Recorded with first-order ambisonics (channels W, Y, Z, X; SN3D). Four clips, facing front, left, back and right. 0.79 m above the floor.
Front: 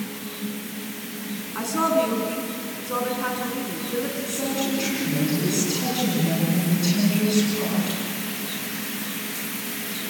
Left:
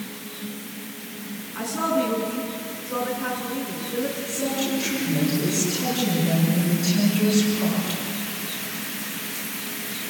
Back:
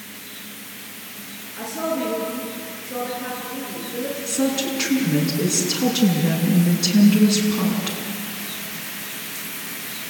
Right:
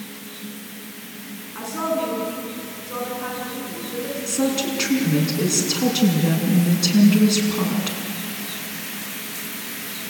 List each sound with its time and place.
1.6 s a woman speaking: 5° right, 6.5 m
4.3 s a woman speaking: 115° right, 7 m